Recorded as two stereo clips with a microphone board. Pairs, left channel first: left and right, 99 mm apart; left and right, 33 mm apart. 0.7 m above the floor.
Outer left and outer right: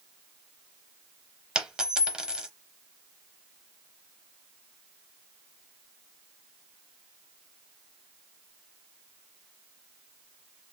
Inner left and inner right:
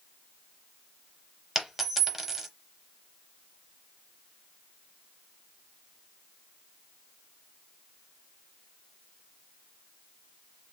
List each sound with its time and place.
1.6 s a dropped coin: 10° right (ahead or behind), 0.7 m